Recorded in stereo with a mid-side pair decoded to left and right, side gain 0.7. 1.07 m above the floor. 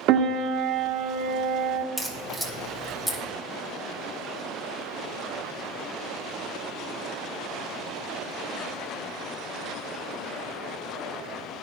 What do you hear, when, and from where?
0.1 s a piano: 55° right, 1.0 m
2.0 s a crack: 5° left, 1.8 m